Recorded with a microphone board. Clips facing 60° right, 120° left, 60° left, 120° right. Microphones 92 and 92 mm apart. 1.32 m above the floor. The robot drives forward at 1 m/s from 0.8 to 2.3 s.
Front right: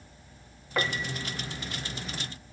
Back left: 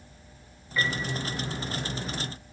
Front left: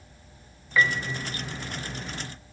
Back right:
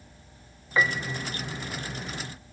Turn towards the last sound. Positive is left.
turn(degrees=-125)